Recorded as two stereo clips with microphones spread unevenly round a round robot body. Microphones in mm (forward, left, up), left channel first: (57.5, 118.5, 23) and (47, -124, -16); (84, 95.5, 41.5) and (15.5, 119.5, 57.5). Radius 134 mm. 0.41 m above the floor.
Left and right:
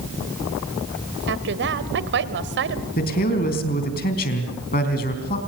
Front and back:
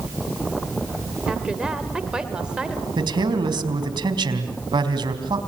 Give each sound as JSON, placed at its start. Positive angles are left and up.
{"t": 1.3, "sound": "a woman speaking", "azimuth_deg": -110, "distance_m": 1.7}
{"t": 3.0, "sound": "a man speaking", "azimuth_deg": 150, "distance_m": 4.0}